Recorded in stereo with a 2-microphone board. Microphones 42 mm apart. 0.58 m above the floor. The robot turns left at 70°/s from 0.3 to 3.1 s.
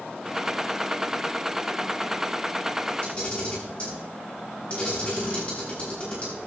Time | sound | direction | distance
3.0 | a camera shutter | 45° left (ahead or behind) | 6.5 m